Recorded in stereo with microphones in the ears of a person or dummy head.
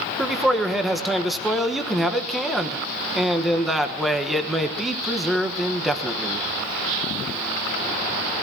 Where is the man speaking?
Centre (ahead or behind), 1.2 m.